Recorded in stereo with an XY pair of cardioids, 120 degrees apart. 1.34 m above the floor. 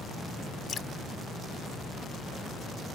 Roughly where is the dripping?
Ahead left.